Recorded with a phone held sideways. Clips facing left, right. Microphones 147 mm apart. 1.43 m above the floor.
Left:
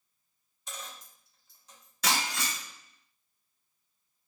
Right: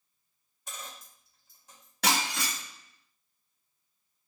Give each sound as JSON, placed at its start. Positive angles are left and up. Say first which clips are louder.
{"t": 0.7, "sound": "a dropped coin", "louder": "even", "side_deg": -55, "distance_m": 1.4}
{"t": 2.0, "sound": "breaking glass", "louder": "right 2 dB", "side_deg": -65, "distance_m": 1.3}